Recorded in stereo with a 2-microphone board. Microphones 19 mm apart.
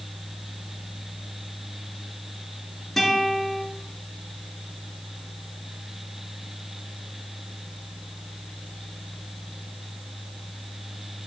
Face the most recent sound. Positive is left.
turn(degrees=10)  # may be behind; listen again after turning